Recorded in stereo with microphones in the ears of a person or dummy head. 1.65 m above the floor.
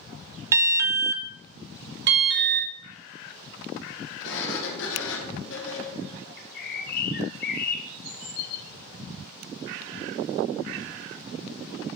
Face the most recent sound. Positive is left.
turn(degrees=55)  # may be behind; listen again after turning